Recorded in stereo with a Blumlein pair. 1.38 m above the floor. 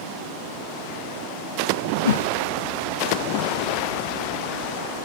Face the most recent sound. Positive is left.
turn(degrees=65)